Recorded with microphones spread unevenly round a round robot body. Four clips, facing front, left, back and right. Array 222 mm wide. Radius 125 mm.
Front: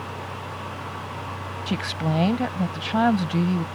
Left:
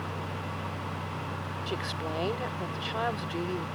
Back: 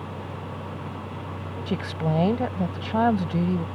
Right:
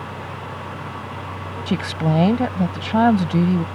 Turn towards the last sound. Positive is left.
turn(degrees=-75)